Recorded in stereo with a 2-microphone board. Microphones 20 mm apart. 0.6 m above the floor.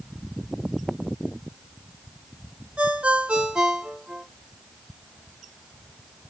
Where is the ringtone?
65° right (ahead or behind), 1.4 m.